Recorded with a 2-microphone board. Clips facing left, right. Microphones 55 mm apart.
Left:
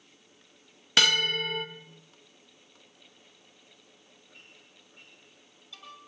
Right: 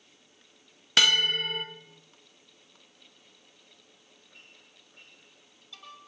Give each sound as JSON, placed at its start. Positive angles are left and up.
{"t": 1.0, "sound": "a bell", "side_deg": 0, "distance_m": 0.5}